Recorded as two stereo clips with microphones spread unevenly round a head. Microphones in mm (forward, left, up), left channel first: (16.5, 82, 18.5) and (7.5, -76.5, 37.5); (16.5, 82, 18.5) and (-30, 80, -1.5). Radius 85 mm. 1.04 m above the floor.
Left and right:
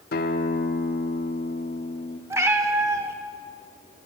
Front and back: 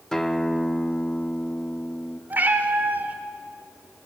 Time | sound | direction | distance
0.1 | a guitar | 60° left | 0.7 m
2.3 | a cat meowing | 105° right | 0.7 m